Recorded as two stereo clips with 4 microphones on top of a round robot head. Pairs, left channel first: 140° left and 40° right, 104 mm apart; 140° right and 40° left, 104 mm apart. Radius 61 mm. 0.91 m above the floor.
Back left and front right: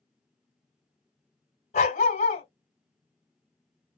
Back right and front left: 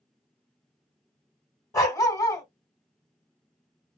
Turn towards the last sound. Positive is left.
turn(degrees=160)